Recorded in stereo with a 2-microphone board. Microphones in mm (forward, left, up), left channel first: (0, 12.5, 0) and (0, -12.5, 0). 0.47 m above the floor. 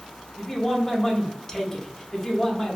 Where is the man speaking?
20° left (ahead or behind), 0.8 m.